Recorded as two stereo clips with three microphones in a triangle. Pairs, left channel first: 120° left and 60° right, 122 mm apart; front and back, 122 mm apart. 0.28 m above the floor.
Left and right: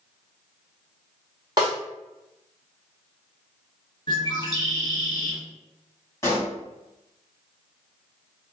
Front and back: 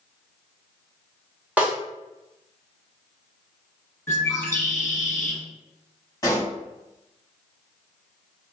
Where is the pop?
60° left, 1.6 m.